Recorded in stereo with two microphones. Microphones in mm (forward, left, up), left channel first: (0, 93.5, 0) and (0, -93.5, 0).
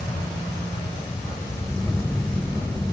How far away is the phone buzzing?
About 0.9 m.